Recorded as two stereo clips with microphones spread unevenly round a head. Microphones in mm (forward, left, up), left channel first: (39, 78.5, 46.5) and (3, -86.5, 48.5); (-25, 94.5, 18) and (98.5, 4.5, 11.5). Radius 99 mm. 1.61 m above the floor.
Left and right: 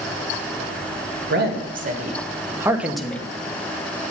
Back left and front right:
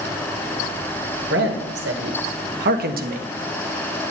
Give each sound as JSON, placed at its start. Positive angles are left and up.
{"t": 1.3, "sound": "a man speaking", "azimuth_deg": -75, "distance_m": 2.0}